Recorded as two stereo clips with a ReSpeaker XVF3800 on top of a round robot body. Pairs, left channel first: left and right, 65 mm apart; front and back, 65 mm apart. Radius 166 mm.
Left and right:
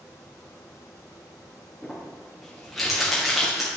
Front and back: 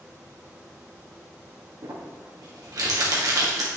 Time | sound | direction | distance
1.8 | crumpling | straight behind | 2.5 m